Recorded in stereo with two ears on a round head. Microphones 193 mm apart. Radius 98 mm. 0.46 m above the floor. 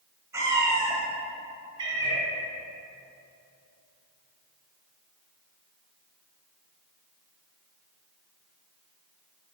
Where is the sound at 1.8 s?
20° right (ahead or behind), 1.4 m.